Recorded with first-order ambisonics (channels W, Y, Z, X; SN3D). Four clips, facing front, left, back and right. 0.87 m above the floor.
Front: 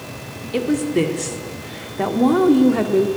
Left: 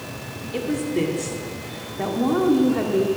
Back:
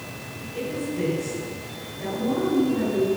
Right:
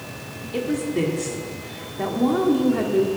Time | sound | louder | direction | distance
0.5 | a woman speaking | even, front 10 dB | straight ahead | 1.6 m